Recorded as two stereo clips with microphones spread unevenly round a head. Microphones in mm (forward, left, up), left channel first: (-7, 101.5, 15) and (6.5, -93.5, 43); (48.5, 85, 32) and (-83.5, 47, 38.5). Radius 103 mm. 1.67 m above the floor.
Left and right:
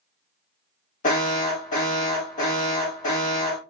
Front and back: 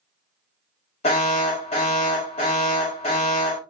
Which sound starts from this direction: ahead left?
An alarm, at 1.0 s.